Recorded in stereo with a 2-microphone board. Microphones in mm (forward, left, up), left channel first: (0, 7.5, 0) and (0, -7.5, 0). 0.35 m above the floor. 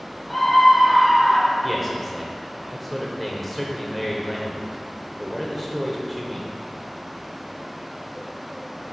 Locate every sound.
0.3 s a scream: 10° left (ahead or behind), 2 m
1.6 s a man speaking: centre (ahead or behind), 1.2 m